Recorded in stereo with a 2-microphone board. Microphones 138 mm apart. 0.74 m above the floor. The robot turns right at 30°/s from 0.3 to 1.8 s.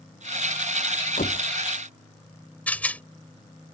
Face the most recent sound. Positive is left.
turn(degrees=10)  # may be behind; listen again after turning